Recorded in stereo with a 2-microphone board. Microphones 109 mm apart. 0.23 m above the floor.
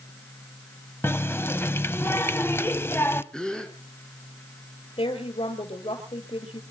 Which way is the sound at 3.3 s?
5° left (ahead or behind).